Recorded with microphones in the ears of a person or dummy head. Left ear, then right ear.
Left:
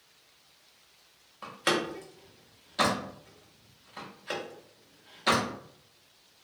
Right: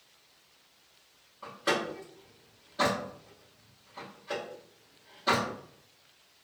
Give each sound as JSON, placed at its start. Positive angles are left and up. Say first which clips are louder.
{"t": 1.4, "sound": "a door slam", "louder": "left 1 dB", "side_deg": 35, "distance_m": 0.7}